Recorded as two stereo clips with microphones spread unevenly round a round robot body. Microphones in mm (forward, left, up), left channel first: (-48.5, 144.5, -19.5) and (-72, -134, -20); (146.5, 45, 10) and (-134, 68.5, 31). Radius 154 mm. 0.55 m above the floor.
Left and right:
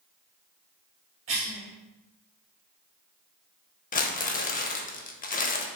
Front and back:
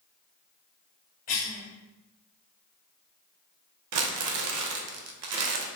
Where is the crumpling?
145° left, 0.5 m.